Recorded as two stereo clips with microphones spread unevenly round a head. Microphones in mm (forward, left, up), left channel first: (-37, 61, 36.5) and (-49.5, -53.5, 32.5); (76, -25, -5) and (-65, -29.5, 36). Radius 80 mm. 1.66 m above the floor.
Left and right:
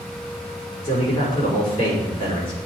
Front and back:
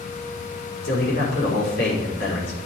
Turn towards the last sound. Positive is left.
turn(degrees=35)